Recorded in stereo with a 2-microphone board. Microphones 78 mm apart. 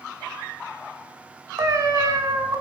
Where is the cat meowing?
45° right (ahead or behind), 0.7 m.